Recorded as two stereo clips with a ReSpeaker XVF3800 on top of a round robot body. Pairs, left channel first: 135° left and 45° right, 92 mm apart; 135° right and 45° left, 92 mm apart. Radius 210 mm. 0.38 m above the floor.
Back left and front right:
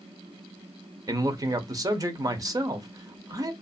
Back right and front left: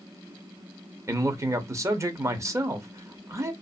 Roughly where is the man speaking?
Ahead.